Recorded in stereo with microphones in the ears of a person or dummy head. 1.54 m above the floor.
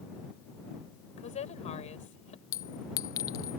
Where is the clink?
15° left (ahead or behind).